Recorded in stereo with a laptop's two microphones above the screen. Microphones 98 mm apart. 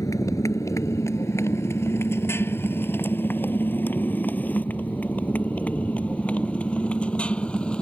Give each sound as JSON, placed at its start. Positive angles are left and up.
{"t": 0.0, "sound": "a motorcycle", "side_deg": 35}